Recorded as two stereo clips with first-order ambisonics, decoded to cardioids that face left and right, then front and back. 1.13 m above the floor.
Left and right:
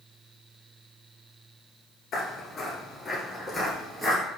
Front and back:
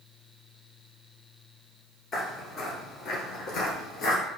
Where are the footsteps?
50° left, 1.4 m; by 4.2 s 20° right, 1.5 m.